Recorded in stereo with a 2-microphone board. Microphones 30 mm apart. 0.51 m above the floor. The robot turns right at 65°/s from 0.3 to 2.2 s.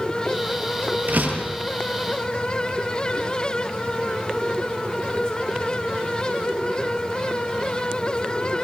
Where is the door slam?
105° right, 8 m; by 1.6 s 75° right, 8 m.